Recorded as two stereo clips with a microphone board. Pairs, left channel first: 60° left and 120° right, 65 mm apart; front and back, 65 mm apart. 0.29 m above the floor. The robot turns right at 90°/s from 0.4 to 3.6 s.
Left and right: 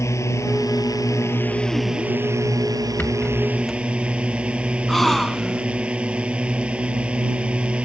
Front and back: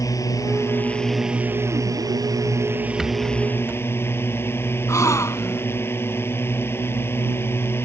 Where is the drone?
25° left; by 7.9 s 50° right.